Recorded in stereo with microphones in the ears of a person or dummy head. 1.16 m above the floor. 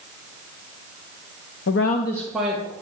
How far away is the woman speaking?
About 0.6 m.